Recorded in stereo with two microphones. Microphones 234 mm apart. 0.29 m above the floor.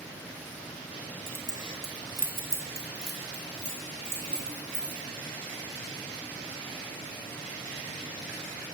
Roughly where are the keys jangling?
Centre.